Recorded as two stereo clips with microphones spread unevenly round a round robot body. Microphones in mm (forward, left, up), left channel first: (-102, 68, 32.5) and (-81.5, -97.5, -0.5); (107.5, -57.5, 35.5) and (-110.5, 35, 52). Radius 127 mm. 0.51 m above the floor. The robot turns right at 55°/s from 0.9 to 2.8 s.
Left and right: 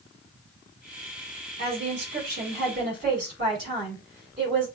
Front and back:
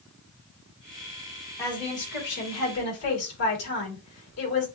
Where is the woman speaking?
100° right, 4 m; by 4.7 s 35° right, 4 m.